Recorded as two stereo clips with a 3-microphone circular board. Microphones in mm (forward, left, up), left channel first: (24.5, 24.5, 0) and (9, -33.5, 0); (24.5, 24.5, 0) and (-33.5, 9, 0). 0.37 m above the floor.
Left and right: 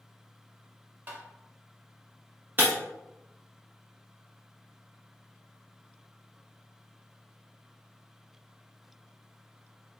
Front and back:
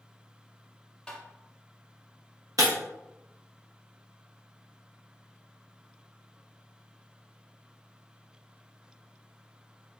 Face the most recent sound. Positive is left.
turn(degrees=-160)